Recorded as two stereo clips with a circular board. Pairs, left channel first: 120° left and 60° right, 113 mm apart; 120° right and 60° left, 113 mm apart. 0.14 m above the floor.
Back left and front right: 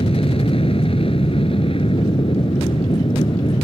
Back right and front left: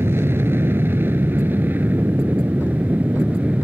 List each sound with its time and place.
0.0 s an aircraft: 125° left; by 3.6 s 135° left